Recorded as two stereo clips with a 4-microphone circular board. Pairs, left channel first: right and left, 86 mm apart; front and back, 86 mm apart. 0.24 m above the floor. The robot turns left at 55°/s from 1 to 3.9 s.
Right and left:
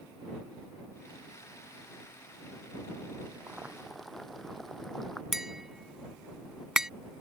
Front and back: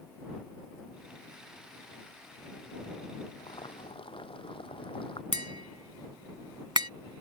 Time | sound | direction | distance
3.4 | boiling | 25° left | ?
5.3 | tapping | 175° left | ?